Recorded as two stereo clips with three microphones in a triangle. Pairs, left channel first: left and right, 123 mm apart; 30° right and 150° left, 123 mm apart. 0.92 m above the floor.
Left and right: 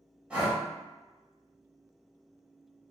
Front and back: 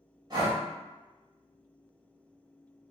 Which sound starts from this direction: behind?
Breathing, at 0.3 s.